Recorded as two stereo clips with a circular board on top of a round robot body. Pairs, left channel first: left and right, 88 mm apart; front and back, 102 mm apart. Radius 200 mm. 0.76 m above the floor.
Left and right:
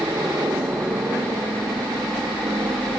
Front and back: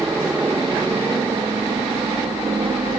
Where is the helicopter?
115° right; by 3.0 s 140° right.